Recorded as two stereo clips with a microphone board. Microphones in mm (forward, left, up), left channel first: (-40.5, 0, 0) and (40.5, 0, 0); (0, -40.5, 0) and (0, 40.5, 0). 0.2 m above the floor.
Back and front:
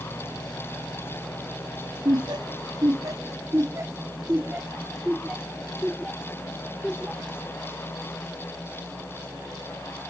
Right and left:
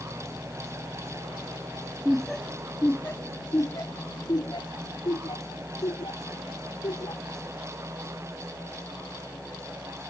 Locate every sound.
2.0 s laughter: 5° left; by 7.4 s 85° right